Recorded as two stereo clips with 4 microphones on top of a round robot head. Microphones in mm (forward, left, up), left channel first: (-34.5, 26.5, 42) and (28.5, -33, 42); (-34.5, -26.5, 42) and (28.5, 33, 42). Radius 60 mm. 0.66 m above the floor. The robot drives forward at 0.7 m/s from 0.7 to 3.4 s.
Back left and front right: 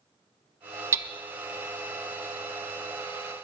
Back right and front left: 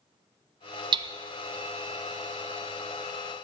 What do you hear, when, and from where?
0.9 s hammering: 15° left, 0.6 m; by 1.1 s 20° left, 0.5 m